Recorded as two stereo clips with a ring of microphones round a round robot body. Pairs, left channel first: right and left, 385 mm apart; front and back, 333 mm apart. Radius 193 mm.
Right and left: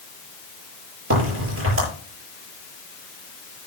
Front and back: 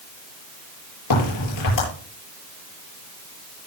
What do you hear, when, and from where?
1.1 s a crack: 30° left, 8 m